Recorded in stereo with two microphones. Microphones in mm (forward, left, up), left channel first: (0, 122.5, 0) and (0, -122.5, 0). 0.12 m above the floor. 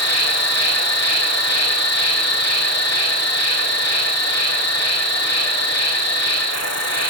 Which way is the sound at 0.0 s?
85° left.